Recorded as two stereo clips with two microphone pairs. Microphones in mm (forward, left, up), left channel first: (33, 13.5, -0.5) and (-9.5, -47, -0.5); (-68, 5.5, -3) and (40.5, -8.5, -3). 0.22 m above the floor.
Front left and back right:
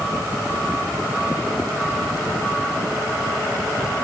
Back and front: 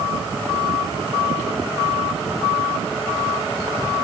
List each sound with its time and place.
Only background noise.